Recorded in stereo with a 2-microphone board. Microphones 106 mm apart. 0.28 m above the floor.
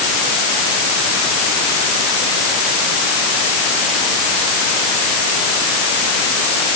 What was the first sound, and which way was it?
Only background noise.